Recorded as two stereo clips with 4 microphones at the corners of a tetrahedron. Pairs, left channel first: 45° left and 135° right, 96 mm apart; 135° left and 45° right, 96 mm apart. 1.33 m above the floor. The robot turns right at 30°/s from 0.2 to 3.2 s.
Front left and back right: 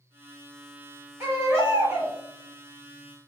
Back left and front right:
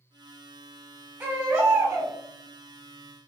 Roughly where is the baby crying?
Right.